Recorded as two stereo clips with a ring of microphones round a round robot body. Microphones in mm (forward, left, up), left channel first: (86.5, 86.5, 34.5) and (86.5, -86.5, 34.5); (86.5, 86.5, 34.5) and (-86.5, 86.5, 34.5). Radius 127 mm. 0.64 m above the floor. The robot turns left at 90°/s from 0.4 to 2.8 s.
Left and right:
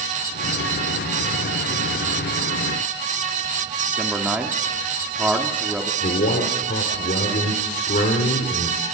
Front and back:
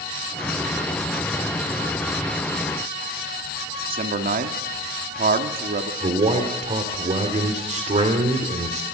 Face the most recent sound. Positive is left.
turn(degrees=135)